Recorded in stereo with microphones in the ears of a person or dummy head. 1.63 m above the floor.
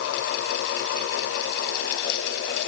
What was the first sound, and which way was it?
Only background noise.